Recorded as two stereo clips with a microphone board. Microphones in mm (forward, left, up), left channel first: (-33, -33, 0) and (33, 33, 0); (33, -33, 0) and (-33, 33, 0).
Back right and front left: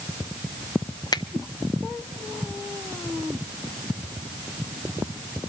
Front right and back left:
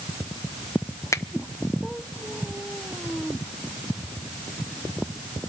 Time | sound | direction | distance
1.1 | a finger snap | 100° right | 0.7 m